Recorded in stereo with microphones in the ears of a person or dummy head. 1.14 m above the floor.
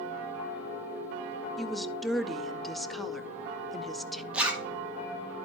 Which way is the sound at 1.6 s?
Centre (ahead or behind).